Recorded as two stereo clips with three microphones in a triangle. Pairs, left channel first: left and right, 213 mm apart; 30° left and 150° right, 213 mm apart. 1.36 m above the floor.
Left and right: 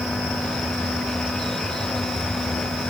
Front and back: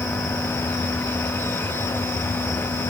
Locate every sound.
Only background noise.